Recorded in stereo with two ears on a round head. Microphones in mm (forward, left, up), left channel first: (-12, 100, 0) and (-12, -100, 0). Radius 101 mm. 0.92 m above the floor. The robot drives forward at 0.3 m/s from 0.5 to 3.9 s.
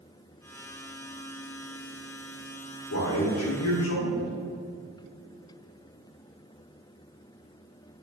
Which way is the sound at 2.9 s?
80° left.